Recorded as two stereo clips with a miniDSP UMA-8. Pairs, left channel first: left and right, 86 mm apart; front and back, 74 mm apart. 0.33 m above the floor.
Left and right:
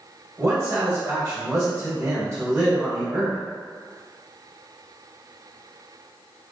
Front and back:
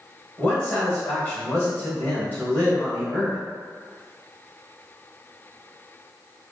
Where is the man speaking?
55° right, 1.7 m.